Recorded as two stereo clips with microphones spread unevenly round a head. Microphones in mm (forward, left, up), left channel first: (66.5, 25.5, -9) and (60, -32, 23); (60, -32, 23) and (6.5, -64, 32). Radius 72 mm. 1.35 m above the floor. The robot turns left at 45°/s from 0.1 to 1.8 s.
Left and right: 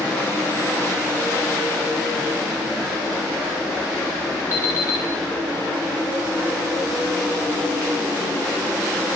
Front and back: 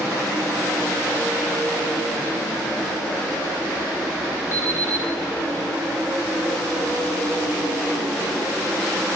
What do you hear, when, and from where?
4.5 s an alarm clock: 35° left, 0.9 m